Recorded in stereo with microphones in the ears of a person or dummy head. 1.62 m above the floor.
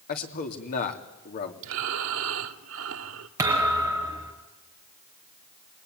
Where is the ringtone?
No ringtone in this recording.